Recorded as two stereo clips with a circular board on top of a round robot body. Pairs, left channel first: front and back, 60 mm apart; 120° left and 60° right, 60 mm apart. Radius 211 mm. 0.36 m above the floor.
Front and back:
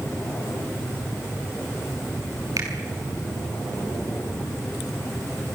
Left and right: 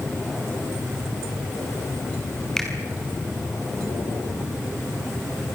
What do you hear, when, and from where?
2.6 s a finger snap: 155° right, 6 m